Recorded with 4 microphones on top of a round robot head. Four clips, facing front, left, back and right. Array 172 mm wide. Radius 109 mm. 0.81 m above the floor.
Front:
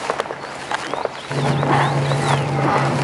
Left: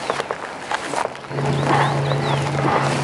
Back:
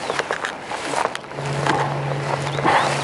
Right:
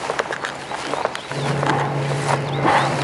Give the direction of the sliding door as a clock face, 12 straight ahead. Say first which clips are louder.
Left 3 dB, front 7 dB; 11 o'clock.